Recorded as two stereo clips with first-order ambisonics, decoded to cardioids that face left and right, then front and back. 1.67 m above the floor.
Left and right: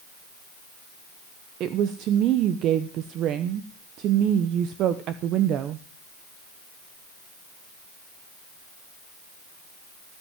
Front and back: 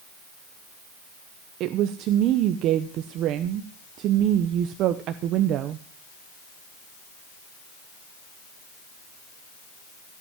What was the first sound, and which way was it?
A woman speaking, 135° right.